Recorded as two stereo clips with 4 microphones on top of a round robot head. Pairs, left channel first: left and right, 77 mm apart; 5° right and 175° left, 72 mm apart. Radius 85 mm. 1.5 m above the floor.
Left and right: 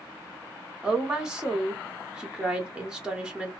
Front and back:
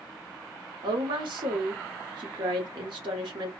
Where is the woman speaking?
170° right, 1.2 m.